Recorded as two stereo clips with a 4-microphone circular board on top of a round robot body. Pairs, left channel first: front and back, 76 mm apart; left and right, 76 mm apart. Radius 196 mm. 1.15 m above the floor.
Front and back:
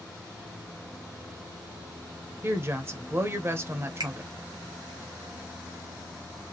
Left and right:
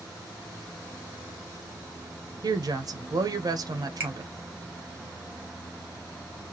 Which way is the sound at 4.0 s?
150° right.